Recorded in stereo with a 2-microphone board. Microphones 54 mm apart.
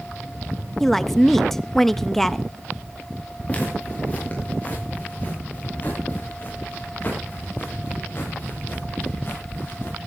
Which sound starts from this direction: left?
Footsteps, at 3.5 s.